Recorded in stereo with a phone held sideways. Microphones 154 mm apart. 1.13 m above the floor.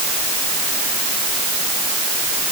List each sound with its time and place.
Only background noise.